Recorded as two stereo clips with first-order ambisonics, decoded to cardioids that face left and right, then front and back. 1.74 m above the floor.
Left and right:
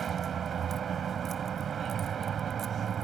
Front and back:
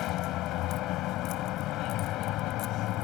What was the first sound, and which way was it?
A vehicle, 30° right.